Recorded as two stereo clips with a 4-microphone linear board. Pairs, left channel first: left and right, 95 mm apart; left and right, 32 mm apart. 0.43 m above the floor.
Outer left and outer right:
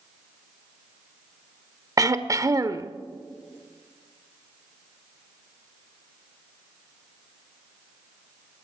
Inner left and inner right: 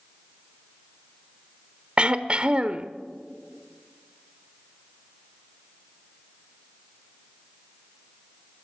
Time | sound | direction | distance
2.0 | throat clearing | 35° right (ahead or behind) | 0.9 m